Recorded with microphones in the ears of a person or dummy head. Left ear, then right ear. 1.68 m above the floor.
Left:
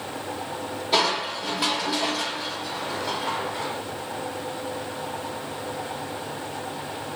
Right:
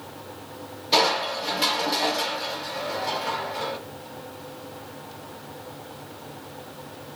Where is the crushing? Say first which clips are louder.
Right 2 dB; 25° right (ahead or behind), 3.5 m.